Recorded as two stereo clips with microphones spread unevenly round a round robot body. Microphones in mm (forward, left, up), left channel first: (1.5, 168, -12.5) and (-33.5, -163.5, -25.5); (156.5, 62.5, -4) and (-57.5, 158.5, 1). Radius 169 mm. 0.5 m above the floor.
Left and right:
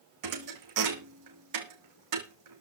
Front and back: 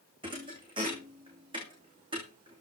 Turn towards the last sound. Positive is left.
turn(degrees=-130)